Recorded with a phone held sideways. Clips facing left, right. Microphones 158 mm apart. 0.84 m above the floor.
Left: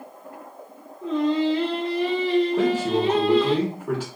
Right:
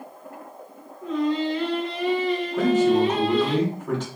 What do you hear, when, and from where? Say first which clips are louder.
1.0 s singing: left 2 dB; 25° left (ahead or behind), 0.9 m
2.6 s a man speaking: right 3 dB; 10° left (ahead or behind), 1.2 m